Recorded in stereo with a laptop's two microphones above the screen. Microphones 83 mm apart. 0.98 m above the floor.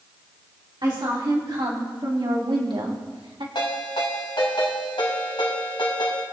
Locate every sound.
0.8 s a woman speaking: 60° right (ahead or behind), 2.5 m; by 3.5 s 70° right (ahead or behind), 1.6 m
3.5 s a ringtone: 75° left (ahead or behind), 2.5 m